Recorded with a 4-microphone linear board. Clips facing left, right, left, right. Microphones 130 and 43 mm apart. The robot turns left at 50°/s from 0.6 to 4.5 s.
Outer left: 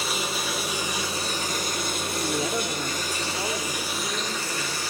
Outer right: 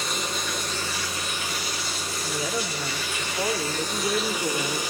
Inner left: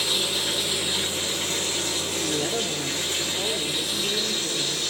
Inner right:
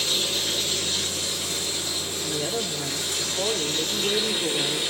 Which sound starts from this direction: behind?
Running water, at 0.0 s.